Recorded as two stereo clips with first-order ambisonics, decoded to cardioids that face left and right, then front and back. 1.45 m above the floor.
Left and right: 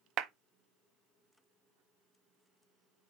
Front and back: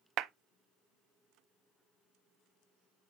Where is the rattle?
No rattle in this recording.